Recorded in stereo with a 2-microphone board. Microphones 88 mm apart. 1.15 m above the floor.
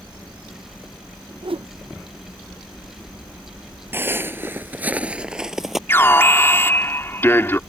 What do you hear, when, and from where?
1.4 s a whoosh: 85° right
3.9 s footsteps: 25° right (ahead or behind); by 5.8 s centre (ahead or behind)
5.9 s an alarm: 30° left (ahead or behind)